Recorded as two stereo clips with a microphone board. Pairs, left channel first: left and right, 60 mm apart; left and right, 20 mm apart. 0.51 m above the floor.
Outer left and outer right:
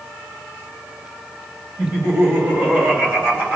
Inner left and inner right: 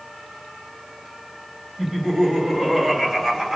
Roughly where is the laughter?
Right.